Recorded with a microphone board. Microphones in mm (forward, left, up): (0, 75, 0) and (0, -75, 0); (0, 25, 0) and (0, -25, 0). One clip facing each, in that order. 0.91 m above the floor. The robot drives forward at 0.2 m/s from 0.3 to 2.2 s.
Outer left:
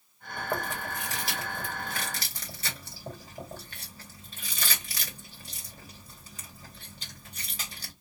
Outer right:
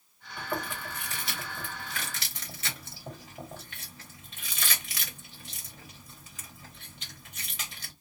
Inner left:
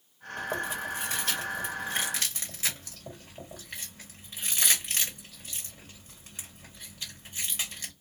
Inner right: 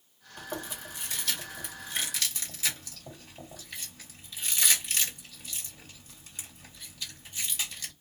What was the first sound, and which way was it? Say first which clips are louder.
Chewing: outer left 2 dB, inner left 7 dB; 40° left (ahead or behind).